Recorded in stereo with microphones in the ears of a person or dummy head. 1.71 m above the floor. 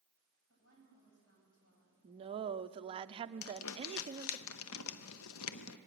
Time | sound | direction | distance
0.5 | a woman speaking | 80° left | 8 m
2.0 | a woman speaking | 25° right (ahead or behind) | 0.5 m
3.4 | crumpling | 75° left (ahead or behind) | 0.8 m